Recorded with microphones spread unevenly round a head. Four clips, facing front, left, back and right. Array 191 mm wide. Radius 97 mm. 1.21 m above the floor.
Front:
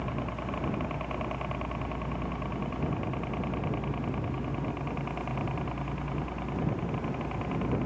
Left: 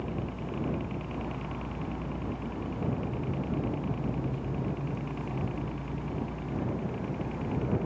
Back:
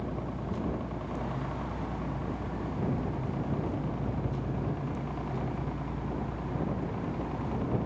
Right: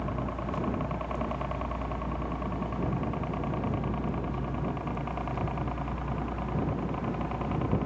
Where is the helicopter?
65° right; by 7.8 s 75° right.